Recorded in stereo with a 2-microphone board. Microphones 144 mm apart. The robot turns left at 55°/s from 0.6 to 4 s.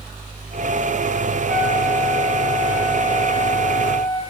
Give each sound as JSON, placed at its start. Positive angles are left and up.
{"t": 1.5, "sound": "a flute", "azimuth_deg": -5, "distance_m": 5.0}